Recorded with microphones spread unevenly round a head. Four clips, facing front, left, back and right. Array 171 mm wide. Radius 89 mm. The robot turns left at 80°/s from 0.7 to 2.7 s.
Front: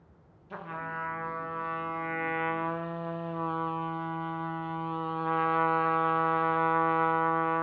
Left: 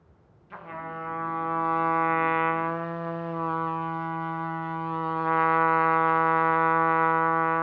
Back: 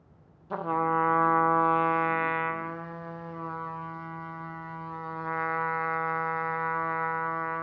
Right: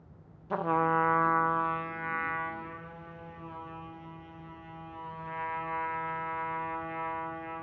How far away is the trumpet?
About 1.1 m.